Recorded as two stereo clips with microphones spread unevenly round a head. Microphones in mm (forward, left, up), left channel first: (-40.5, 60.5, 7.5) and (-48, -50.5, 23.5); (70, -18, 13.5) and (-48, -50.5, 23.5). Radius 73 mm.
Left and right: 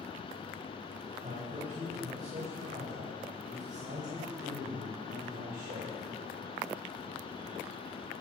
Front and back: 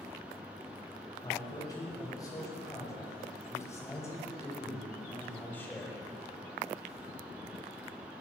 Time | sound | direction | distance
1.2 | a man speaking | 45° right | 9.5 m